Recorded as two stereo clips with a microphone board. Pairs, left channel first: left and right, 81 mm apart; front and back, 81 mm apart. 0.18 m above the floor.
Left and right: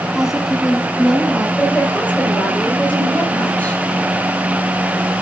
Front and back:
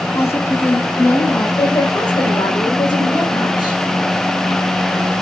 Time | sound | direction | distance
0.1 | a woman speaking | 15° right | 1.3 m
1.6 | a woman speaking | 20° left | 6 m